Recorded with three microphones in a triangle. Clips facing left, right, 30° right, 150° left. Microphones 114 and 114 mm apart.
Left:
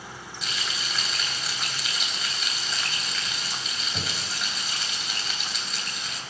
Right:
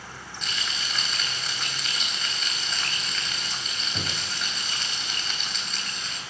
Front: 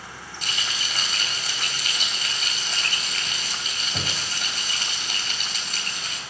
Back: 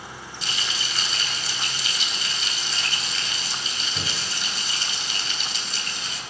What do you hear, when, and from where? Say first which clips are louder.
0.4 s frying: even, even; 5° left, 3.5 m